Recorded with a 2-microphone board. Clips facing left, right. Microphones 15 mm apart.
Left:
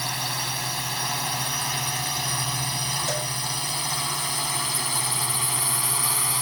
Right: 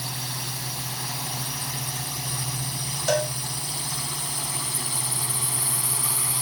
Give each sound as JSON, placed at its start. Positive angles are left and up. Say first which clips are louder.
{"t": 0.0, "sound": "a drone", "louder": "left 4 dB", "side_deg": 55}
{"t": 3.1, "sound": "a cowbell", "louder": "right 4 dB", "side_deg": -80}